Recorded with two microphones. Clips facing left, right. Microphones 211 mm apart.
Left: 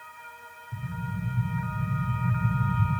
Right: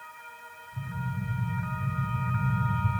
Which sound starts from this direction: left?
An explosion, at 0.7 s.